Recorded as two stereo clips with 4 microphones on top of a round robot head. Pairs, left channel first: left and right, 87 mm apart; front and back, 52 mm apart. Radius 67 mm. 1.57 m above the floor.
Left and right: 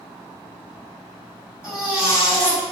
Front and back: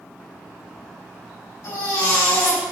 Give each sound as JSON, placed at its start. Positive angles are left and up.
{"t": 1.6, "sound": "a baby crying", "azimuth_deg": -10, "distance_m": 4.5}